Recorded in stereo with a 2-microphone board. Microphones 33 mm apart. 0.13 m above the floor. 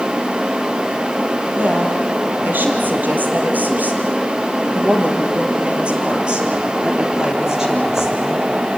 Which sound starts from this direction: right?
A woman speaking, at 1.6 s.